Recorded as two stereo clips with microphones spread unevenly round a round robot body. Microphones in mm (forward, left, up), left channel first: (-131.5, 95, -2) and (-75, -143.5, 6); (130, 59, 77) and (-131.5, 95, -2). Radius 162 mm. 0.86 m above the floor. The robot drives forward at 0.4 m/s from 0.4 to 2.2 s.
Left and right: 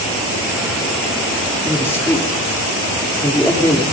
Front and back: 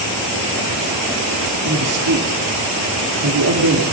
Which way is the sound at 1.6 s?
Straight behind.